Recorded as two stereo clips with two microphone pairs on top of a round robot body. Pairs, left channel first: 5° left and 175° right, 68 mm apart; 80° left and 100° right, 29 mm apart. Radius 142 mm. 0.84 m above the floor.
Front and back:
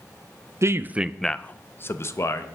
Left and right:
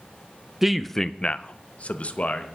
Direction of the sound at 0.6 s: 160° right.